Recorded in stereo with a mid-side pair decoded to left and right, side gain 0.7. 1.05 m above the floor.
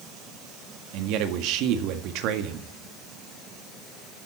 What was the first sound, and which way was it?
A man speaking, 60° right.